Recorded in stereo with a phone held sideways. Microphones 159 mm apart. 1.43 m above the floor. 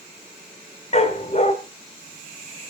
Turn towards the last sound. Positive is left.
turn(degrees=45)  # may be behind; listen again after turning